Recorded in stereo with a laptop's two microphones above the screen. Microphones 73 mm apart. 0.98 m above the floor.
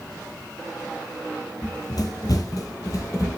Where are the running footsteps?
55° left (ahead or behind), 1.6 m; by 3.4 s 45° left (ahead or behind), 1.9 m.